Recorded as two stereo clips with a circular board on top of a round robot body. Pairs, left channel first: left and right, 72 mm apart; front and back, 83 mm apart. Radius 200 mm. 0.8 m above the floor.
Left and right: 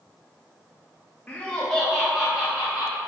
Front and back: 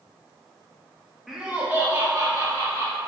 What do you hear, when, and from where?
1.3 s laughter: 105° left, 0.8 m; by 3.0 s 155° right, 1.2 m